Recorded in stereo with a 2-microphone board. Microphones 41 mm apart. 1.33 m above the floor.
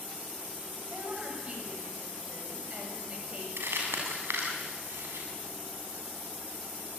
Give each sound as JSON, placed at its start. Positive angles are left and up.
{"t": 0.9, "sound": "a woman speaking", "side_deg": -35, "distance_m": 8.5}
{"t": 3.6, "sound": "crumpling", "side_deg": -85, "distance_m": 6.5}